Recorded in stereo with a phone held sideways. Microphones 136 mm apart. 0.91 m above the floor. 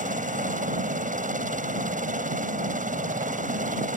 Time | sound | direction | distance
0.0 | a helicopter | 70° right (ahead or behind) | ?